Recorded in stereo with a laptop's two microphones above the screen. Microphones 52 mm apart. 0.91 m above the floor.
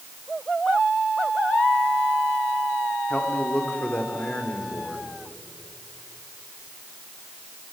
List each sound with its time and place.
3.1 s a man speaking: 25° left (ahead or behind), 3 m; by 5.1 s 30° left (ahead or behind), 4 m